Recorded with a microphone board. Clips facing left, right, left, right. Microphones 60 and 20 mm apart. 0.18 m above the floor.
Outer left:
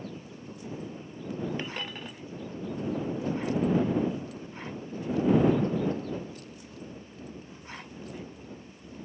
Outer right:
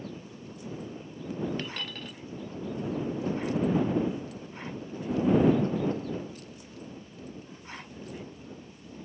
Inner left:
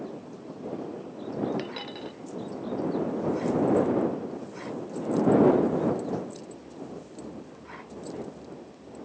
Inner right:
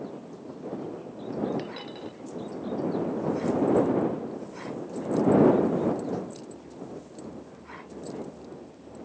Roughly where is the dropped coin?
Centre.